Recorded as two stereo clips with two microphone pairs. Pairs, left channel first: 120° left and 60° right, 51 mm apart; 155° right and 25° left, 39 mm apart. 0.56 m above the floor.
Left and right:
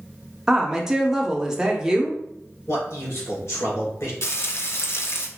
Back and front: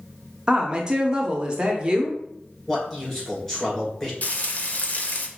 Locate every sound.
0.5 s a woman speaking: 5° right, 0.7 m
2.7 s a man speaking: 135° left, 2 m
4.2 s frying: 160° left, 0.5 m